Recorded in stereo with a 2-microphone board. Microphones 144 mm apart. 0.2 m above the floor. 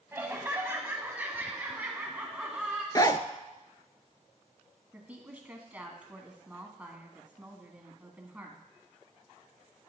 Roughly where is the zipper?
Left.